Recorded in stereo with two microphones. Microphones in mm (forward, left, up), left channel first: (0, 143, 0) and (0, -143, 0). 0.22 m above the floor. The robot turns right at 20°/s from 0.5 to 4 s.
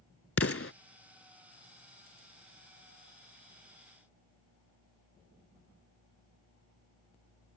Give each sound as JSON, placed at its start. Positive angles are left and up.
{"t": 0.4, "sound": "an explosion", "side_deg": 50}